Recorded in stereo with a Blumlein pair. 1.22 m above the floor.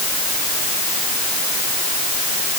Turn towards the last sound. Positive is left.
No sound to turn to.